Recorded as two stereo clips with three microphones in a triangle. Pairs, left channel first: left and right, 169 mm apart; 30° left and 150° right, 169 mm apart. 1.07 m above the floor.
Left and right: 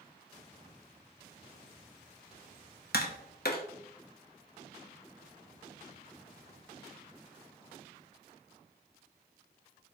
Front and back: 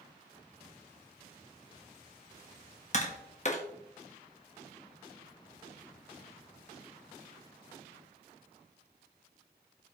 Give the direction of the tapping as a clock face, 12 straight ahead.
10 o'clock.